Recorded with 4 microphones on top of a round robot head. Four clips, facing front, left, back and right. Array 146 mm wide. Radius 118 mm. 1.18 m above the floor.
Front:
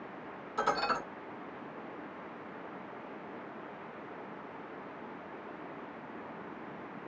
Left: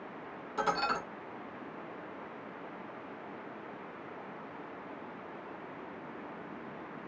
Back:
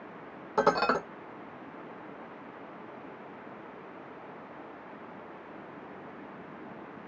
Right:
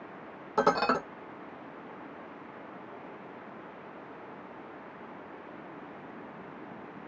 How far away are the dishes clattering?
About 0.9 m.